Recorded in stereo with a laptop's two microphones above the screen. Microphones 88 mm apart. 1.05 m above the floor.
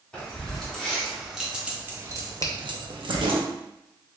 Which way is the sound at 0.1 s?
15° left (ahead or behind).